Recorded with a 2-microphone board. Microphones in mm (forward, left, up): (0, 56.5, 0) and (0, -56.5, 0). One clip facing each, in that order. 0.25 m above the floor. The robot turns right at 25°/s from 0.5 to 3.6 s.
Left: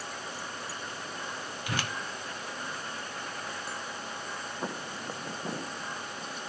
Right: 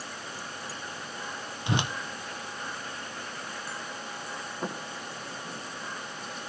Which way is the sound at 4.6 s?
5° right (ahead or behind).